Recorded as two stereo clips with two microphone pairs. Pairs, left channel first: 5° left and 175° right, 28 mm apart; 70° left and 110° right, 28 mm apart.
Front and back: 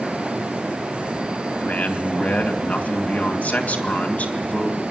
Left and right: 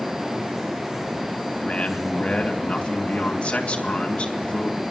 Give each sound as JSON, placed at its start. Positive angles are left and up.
{"t": 1.6, "sound": "a man speaking", "azimuth_deg": 25, "distance_m": 2.5}